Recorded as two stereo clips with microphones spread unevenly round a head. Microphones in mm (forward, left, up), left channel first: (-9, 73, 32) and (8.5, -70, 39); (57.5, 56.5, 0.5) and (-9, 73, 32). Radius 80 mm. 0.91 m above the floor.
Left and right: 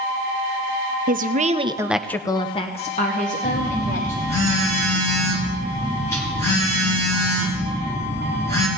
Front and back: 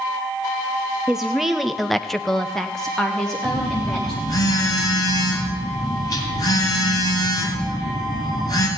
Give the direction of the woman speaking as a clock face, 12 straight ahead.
3 o'clock.